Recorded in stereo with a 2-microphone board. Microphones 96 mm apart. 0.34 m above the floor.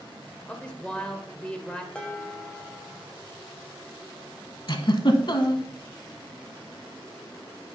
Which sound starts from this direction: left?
A giggle, at 4.7 s.